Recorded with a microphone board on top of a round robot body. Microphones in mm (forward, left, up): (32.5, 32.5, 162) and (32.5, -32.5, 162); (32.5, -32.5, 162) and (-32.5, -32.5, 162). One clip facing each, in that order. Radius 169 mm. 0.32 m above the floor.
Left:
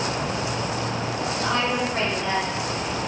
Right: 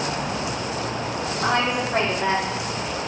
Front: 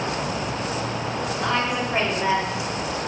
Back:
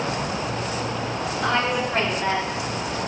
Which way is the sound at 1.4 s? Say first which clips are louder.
Right 3 dB, back 2 dB; 90° right.